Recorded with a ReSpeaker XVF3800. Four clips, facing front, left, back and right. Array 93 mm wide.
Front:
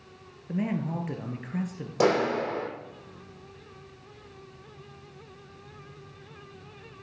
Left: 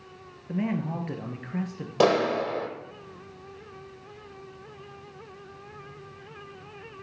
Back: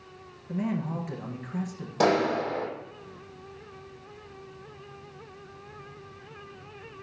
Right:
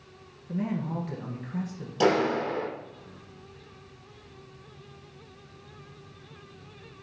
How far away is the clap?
About 4 m.